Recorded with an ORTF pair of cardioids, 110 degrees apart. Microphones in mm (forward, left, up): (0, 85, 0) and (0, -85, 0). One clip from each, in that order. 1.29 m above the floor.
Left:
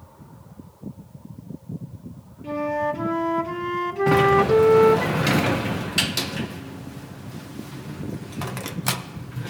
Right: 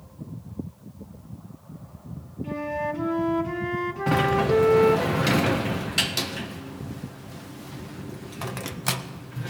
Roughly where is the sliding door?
Ahead.